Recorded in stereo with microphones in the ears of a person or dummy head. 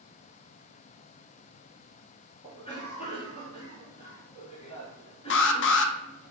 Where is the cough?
30° left (ahead or behind), 1.8 m.